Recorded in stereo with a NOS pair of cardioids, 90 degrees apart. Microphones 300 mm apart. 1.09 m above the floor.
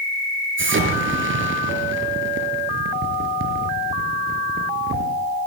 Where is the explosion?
45° right, 5 m.